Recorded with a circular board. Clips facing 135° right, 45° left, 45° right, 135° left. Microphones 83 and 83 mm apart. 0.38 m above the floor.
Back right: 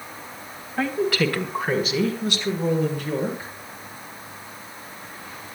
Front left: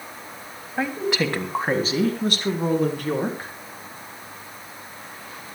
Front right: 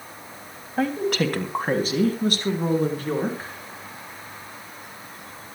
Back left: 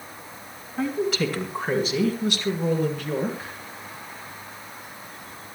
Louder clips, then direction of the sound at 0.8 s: Back right 2 dB, front right 2 dB; 30° right.